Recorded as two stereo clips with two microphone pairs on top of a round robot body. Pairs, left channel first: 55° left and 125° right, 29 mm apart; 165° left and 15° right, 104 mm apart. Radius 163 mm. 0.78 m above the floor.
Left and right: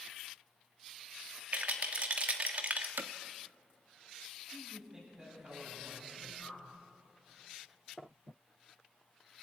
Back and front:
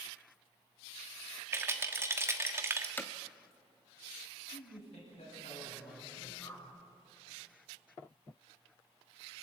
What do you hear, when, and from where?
1.5 s a rattle: 85° right, 1.3 m
3.0 s hammering: 125° right, 0.7 m
4.5 s a man speaking: straight behind, 8.5 m
6.4 s a whoosh: 105° left, 6.5 m